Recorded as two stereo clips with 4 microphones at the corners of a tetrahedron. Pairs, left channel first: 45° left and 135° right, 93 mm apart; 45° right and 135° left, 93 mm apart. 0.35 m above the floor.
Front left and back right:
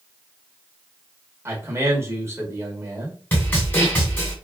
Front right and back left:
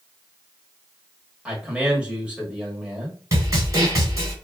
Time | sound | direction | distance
1.4 | a man speaking | 155° right | 1.1 m
3.3 | a snare drum | 105° left | 1.5 m